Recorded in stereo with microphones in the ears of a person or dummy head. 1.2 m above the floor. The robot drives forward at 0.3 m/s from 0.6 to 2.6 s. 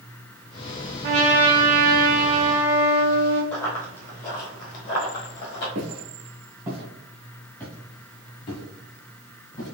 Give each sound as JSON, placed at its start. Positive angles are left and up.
{"t": 1.0, "sound": "a trumpet", "side_deg": -40, "distance_m": 1.5}
{"t": 3.5, "sound": "running footsteps", "side_deg": 15, "distance_m": 1.2}
{"t": 5.8, "sound": "footsteps", "side_deg": -40, "distance_m": 1.5}